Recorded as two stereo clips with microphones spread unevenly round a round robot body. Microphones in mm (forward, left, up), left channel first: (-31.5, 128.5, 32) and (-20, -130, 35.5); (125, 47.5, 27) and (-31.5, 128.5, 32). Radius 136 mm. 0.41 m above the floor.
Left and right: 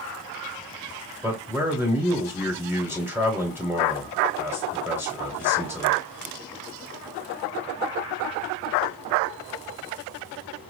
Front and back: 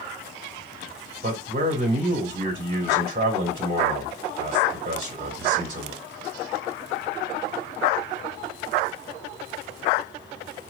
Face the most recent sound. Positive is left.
turn(degrees=-165)